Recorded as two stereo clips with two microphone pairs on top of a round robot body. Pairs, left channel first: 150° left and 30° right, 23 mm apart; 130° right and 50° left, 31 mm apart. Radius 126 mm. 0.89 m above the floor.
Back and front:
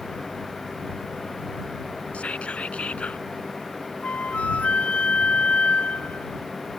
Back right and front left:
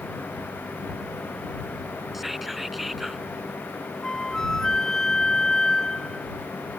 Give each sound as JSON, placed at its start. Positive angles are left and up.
{"t": 2.1, "sound": "whispering", "azimuth_deg": 135}
{"t": 4.0, "sound": "a flute", "azimuth_deg": 160}